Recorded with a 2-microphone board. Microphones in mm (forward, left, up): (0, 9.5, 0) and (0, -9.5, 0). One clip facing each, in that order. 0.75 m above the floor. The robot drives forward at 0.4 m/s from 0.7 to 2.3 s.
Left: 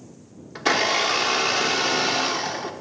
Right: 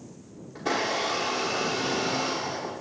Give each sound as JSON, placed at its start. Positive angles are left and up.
{"t": 0.6, "sound": "a blender", "side_deg": 75, "distance_m": 1.0}